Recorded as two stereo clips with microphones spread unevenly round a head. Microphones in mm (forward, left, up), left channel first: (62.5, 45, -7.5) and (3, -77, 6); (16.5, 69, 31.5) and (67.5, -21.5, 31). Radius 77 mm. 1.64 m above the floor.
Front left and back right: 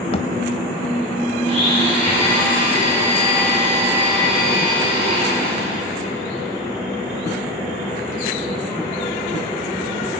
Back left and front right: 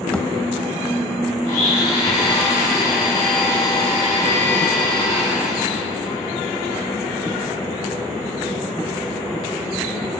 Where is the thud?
45° left, 1.8 m.